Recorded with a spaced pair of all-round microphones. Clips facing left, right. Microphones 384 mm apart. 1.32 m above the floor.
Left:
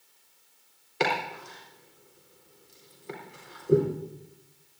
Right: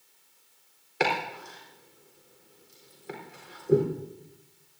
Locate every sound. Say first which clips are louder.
1.0 s chopping: even; 5° left (ahead or behind), 4 m